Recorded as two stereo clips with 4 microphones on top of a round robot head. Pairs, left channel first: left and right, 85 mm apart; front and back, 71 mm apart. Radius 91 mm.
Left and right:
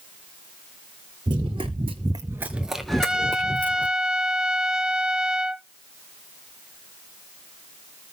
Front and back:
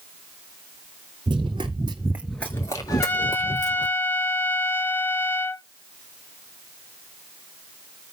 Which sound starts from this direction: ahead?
A trumpet, at 2.9 s.